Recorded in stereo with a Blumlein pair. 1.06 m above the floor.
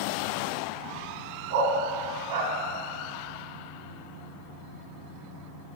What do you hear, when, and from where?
1.5 s a dog barking: 55° right, 1.7 m